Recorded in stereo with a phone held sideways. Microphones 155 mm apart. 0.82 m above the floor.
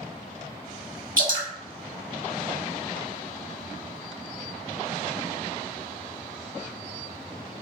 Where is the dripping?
60° right (ahead or behind), 1.7 m.